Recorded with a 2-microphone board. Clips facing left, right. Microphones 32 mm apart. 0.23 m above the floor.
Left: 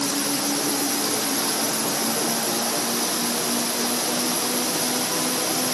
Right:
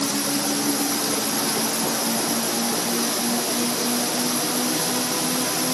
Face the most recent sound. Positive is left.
No sound to turn to.